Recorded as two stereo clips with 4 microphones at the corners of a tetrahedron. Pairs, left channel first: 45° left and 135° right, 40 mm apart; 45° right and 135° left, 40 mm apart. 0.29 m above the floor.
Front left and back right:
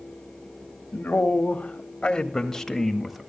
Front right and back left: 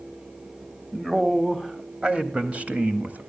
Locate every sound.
0.9 s a man speaking: 55° left, 2.0 m; by 3.3 s 145° left, 1.8 m